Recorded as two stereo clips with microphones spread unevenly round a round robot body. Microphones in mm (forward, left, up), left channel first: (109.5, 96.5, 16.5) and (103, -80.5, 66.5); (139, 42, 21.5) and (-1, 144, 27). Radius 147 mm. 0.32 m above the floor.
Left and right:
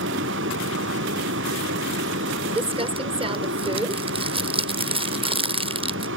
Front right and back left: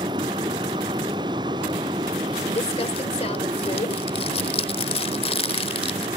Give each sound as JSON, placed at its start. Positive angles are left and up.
{"t": 0.0, "sound": "a vehicle", "azimuth_deg": -140}
{"t": 2.5, "sound": "crumpling", "azimuth_deg": -25}